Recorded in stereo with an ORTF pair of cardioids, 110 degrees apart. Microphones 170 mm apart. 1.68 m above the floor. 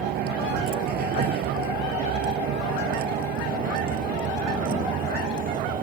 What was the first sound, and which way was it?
A vehicle, 70° right.